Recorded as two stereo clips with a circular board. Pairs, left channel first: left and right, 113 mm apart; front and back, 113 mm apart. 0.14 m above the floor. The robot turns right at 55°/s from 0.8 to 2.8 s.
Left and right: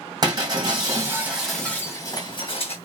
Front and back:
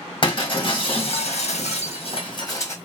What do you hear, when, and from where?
0.2 s breaking glass: 35° right, 1.4 m; by 2.8 s 70° left, 1.4 m